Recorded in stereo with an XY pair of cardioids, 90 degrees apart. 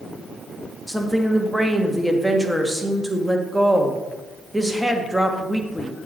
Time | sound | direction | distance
0.9 | a woman speaking | straight ahead | 1.6 m